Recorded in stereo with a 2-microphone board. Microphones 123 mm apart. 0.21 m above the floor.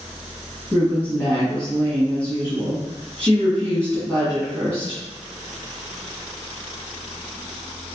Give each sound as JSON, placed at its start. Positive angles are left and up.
{"t": 0.7, "sound": "a woman speaking", "side_deg": 10, "distance_m": 1.7}